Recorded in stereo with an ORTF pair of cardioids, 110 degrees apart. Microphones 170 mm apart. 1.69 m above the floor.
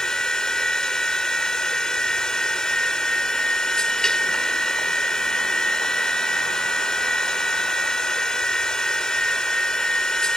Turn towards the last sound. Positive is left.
turn(degrees=5)